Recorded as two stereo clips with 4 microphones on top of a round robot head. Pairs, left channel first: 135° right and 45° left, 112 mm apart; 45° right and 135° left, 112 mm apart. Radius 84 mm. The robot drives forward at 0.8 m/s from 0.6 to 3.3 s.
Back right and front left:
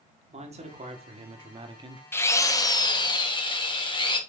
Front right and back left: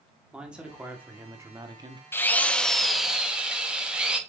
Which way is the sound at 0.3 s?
55° left.